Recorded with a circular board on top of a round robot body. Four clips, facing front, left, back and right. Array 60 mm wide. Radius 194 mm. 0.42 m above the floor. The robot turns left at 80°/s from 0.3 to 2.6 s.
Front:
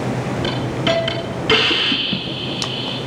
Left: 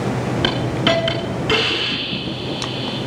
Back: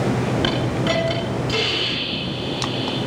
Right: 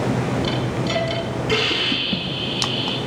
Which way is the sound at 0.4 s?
110° left.